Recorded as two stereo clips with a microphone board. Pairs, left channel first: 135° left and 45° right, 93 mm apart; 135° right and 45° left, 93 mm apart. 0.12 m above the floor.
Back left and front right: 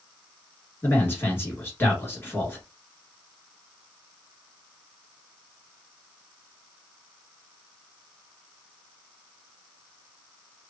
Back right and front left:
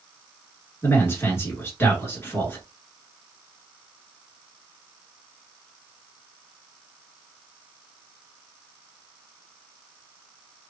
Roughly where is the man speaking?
Behind.